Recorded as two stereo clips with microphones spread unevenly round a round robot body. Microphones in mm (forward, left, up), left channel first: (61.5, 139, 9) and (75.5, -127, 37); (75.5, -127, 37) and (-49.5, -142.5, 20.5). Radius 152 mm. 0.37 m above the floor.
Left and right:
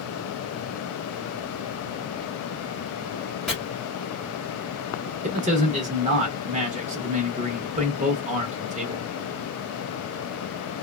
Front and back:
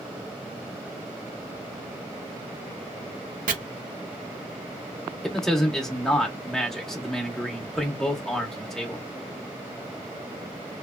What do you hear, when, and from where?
3.5 s chopping: 175° right, 0.6 m
5.2 s a man speaking: 95° right, 0.8 m